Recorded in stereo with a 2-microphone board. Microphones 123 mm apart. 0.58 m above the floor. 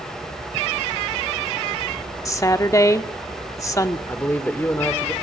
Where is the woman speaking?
25° left (ahead or behind), 1.5 m.